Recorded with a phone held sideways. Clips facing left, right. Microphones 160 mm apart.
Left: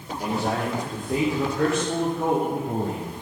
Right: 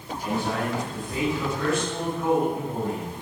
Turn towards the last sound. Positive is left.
turn(degrees=55)  # may be behind; listen again after turning